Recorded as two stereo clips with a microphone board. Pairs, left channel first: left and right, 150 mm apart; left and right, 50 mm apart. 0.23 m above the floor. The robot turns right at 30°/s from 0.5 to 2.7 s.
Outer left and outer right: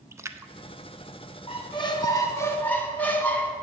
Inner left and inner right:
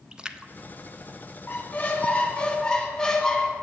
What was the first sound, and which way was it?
A splash, 20° right (ahead or behind).